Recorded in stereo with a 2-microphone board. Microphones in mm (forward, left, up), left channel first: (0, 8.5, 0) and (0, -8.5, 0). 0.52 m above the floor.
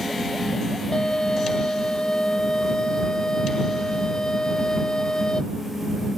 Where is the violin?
50° left (ahead or behind).